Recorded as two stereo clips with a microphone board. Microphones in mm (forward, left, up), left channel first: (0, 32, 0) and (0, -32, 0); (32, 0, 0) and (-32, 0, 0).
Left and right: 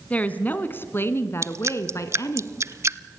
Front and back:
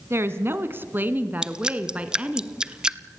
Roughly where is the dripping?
Right.